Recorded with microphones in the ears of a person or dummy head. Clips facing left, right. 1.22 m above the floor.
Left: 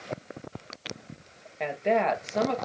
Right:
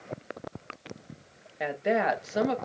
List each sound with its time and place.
1.6 s a woman speaking: 5° right (ahead or behind), 0.9 m